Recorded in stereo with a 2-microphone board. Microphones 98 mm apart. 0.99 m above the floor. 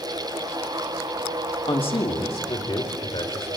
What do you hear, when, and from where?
1.7 s a man speaking: 65° left (ahead or behind), 1.9 m; by 3.5 s 75° left (ahead or behind), 4.5 m